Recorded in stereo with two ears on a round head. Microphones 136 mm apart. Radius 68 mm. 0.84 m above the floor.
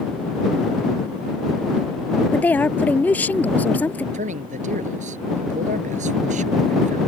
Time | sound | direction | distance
2.3 | a woman speaking | 10° left (ahead or behind) | ?
4.1 | a man speaking | 50° right (ahead or behind) | ?